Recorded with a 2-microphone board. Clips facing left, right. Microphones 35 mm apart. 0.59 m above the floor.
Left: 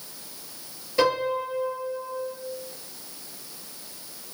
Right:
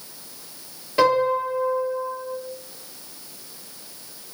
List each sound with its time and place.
1.0 s a piano: 40° right (ahead or behind), 1.6 m